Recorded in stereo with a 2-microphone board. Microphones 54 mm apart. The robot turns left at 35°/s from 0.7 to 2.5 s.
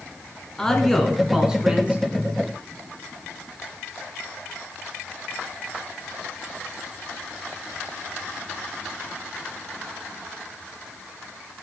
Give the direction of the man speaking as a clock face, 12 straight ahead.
12 o'clock.